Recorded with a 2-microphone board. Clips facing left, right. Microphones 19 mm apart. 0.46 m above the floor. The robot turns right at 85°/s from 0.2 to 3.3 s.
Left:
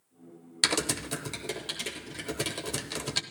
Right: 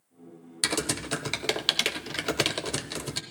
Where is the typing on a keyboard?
165° left, 0.5 m; by 3.2 s 25° left, 0.5 m.